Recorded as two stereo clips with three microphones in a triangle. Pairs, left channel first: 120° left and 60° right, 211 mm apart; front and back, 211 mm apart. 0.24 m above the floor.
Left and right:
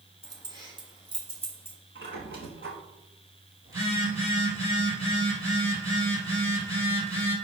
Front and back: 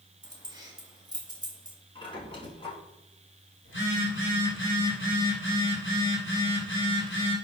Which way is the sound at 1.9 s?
60° right.